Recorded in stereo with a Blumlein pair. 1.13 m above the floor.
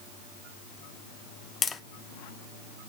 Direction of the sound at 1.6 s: 15° left.